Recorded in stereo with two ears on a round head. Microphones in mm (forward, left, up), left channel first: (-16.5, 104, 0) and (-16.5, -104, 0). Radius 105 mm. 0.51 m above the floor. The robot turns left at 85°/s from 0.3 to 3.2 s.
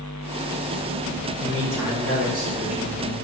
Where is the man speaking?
55° right, 5 m; by 3.1 s 155° left, 5 m.